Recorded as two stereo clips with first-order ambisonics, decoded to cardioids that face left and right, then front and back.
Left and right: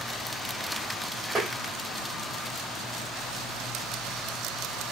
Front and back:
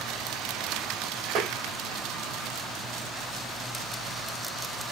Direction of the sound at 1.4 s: 165° right.